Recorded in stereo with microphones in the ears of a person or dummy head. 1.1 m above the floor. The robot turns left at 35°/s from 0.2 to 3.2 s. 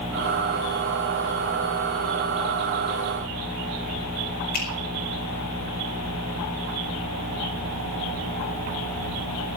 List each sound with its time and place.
4.5 s a finger snap: 45° left (ahead or behind), 5 m